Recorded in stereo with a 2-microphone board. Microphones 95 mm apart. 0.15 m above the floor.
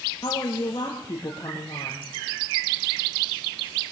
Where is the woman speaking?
35° left (ahead or behind), 4 m.